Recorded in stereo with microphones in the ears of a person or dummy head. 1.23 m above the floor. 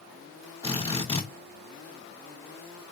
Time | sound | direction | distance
0.6 | a drill | 15° left (ahead or behind) | 6 m